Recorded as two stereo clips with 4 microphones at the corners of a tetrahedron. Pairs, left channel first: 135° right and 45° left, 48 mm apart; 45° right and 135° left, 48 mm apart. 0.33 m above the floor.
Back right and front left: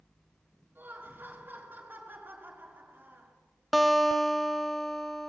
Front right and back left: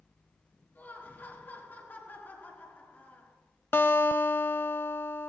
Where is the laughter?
Straight ahead, 4 m.